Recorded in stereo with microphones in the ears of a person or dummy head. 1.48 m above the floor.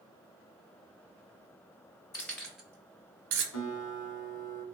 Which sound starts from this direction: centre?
Keys jangling, at 2.1 s.